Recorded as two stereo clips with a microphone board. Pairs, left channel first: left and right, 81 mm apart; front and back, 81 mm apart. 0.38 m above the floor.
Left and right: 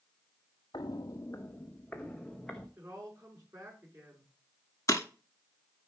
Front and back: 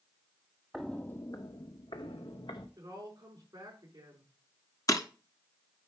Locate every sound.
0.7 s footsteps: 90° left, 0.6 m; by 2.7 s 5° left, 1.9 m
2.8 s a woman speaking: 140° right, 5 m
4.9 s breaking glass: 45° left, 1.1 m